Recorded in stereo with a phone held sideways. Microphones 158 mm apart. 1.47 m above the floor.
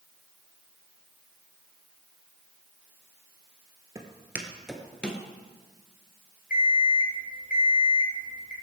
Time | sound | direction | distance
4.0 | footsteps | 20° right (ahead or behind) | 1.7 m
6.5 | an alarm clock | 65° left (ahead or behind) | 3.5 m